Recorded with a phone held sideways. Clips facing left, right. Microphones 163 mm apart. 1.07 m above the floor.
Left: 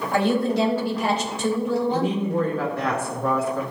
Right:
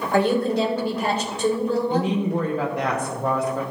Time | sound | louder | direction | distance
0.1 | a woman speaking | right 1 dB | 55° right (ahead or behind) | 3.5 m
1.9 | a woman speaking | right 1 dB | 15° right (ahead or behind) | 1.1 m